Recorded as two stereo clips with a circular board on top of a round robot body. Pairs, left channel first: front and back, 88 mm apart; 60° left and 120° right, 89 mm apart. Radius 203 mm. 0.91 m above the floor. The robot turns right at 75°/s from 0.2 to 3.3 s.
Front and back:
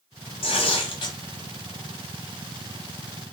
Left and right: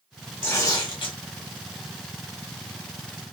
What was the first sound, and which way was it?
Tearing paper, 10° right.